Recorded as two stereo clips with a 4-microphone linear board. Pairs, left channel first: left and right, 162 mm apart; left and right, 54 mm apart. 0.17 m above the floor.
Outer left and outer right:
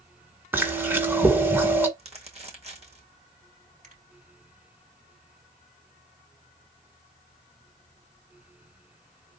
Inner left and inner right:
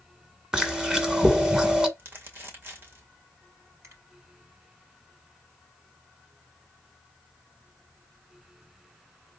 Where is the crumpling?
40° right (ahead or behind), 2.5 m.